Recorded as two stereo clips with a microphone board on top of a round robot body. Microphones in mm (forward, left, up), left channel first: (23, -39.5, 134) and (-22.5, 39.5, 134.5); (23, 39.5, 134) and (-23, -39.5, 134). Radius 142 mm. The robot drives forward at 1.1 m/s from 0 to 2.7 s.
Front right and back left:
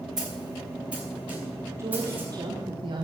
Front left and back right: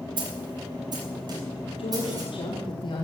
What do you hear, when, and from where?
0.2 s a snare drum: 155° right, 2 m; by 2.3 s 170° right, 4.5 m
1.8 s a woman speaking: 60° left, 2 m; by 3.0 s 90° left, 1.8 m